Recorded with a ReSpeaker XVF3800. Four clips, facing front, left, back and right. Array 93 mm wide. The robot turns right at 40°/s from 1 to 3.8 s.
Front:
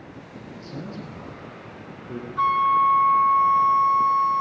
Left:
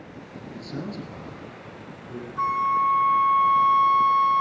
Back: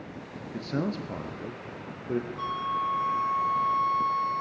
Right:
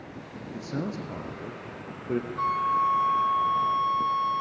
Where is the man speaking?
160° right, 3.5 m; by 2.3 s 110° right, 3.5 m.